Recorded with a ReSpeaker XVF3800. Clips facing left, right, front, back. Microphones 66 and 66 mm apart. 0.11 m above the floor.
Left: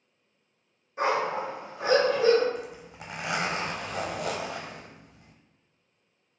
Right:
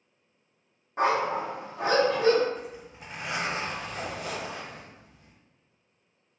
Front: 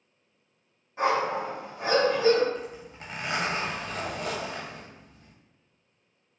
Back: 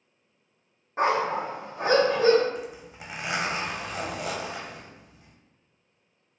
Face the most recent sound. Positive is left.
turn(degrees=100)